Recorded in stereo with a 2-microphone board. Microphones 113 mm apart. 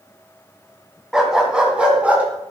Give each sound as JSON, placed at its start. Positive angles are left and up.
{"t": 1.1, "sound": "a dog barking", "side_deg": -5, "distance_m": 2.0}